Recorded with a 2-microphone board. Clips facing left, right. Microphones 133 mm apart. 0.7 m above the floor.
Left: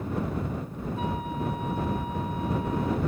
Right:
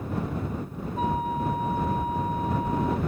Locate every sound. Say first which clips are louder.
1.0 s a flute: right 5 dB; 40° right (ahead or behind)